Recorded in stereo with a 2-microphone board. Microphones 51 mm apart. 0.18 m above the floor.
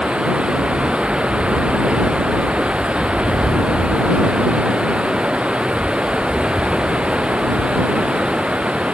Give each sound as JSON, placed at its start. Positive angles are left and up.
{"t": 0.0, "sound": "running water", "side_deg": -20}